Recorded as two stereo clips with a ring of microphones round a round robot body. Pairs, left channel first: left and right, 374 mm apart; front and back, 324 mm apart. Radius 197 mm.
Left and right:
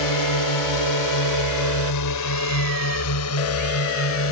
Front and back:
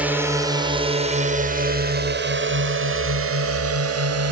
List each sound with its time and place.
0.0 s a drone: 95° left; by 4.3 s 145° left